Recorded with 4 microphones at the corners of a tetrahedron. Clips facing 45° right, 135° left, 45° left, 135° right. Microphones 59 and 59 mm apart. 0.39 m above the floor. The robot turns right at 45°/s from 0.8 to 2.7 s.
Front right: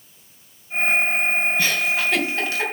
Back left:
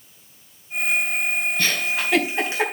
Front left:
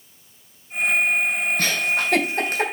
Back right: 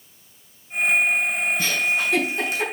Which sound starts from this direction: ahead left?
A giggle, at 1.6 s.